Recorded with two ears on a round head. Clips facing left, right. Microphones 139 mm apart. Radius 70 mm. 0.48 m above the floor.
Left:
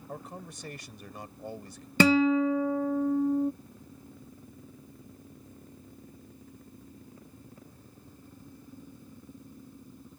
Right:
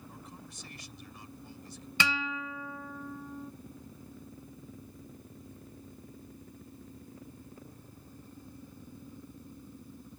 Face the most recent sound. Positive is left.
turn(degrees=40)  # may be behind; listen again after turning